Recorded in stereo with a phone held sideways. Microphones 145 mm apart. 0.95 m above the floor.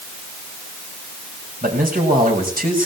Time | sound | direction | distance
1.6 | a man speaking | 85° right | 5.5 m